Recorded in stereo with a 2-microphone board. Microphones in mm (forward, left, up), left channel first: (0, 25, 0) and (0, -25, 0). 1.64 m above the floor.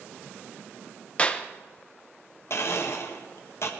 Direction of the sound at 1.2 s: 25° left (ahead or behind).